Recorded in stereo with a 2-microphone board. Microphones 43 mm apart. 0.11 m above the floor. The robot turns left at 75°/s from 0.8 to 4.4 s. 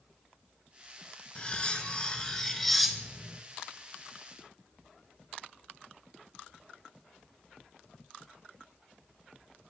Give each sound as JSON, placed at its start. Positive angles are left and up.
{"t": 1.4, "sound": "cutlery clinking", "side_deg": 25, "distance_m": 0.7}